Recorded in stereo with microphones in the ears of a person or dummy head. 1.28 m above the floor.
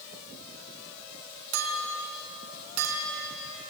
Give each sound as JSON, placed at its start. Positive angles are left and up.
{"t": 1.5, "sound": "a clink", "side_deg": -85, "distance_m": 3.0}